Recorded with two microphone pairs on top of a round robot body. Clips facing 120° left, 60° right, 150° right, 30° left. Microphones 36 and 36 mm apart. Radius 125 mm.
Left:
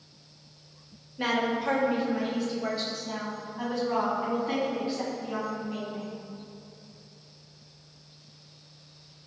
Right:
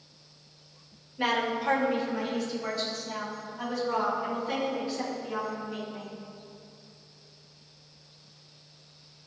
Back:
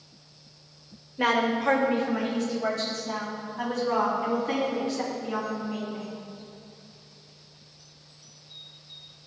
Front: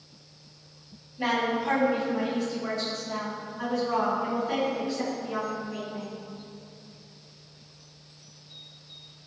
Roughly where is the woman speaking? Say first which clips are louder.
Even, back 3 dB; behind right.